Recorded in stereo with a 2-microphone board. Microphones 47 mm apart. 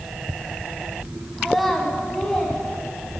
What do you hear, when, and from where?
1.4 s a child speaking: centre (ahead or behind), 1.2 m; by 3.2 s 15° left (ahead or behind), 2.0 m